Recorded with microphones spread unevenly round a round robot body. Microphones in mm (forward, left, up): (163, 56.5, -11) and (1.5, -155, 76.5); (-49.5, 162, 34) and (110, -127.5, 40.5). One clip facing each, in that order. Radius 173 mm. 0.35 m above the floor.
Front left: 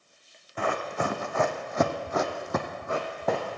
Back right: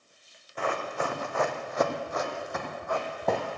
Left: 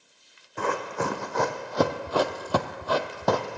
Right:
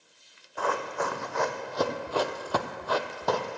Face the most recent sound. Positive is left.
turn(degrees=160)